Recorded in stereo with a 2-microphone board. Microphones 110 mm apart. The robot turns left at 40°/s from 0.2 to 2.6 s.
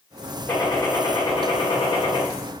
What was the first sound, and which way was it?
A gunshot, 155° left.